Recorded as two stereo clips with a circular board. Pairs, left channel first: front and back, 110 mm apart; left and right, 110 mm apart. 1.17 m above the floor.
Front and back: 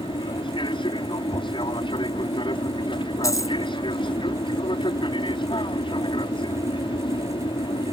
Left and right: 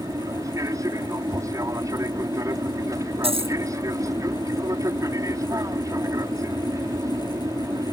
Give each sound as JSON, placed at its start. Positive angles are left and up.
{"t": 0.0, "sound": "an aircraft", "azimuth_deg": -35}
{"t": 3.2, "sound": "a dropped coin", "azimuth_deg": -60}